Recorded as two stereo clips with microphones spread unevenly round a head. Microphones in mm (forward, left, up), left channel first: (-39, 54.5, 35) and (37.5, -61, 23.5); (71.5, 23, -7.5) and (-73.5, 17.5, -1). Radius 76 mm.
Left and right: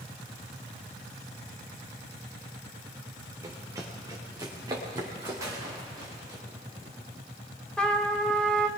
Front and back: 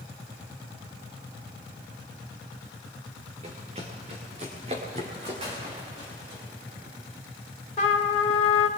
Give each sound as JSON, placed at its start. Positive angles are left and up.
{"t": 3.4, "sound": "running footsteps", "azimuth_deg": -125, "distance_m": 3.5}
{"t": 5.4, "sound": "a gunshot", "azimuth_deg": -125, "distance_m": 4.0}
{"t": 7.8, "sound": "a trumpet", "azimuth_deg": 40, "distance_m": 2.0}